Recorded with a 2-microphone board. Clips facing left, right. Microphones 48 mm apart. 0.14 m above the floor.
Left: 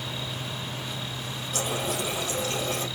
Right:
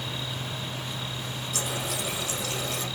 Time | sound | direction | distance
1.5 | a running tap | 50° left (ahead or behind) | 3 m